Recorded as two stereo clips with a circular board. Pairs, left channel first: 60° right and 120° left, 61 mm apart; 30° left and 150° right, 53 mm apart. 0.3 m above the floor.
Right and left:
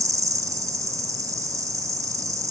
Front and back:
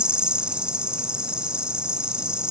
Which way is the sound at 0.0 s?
140° left.